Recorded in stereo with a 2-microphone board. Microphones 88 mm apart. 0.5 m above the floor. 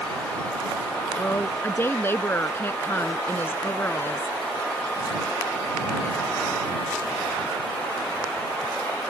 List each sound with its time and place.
1.2 s a woman speaking: 25° left (ahead or behind)